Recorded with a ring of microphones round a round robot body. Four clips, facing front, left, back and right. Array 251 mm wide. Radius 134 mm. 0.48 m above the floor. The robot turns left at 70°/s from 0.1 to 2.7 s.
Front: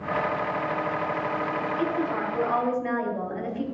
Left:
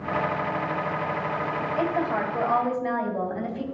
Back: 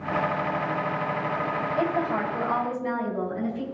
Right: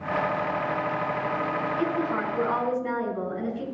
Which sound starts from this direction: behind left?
A woman speaking, at 1.8 s.